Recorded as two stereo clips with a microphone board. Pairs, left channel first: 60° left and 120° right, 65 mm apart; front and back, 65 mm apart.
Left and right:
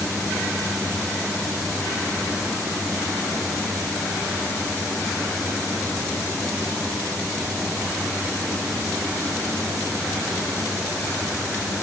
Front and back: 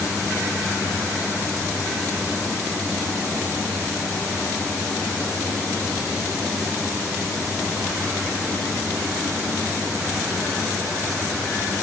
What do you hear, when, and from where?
Only background noise.